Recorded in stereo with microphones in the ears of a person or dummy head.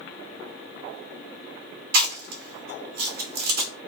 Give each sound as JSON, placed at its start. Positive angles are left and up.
{"t": 1.9, "sound": "chewing", "side_deg": -50, "distance_m": 1.5}